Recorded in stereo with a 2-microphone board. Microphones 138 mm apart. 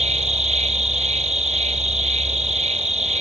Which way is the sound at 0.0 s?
50° right (ahead or behind).